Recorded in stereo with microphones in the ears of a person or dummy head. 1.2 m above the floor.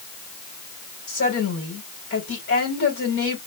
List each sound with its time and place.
1.1 s a woman speaking: 75° left (ahead or behind), 5 m